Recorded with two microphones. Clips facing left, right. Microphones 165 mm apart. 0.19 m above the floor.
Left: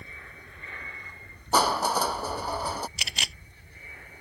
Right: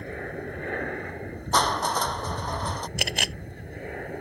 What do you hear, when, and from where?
0.0 s an aircraft: 60° right (ahead or behind)
1.5 s crushing: 5° left (ahead or behind)
3.0 s a camera shutter: 55° right (ahead or behind)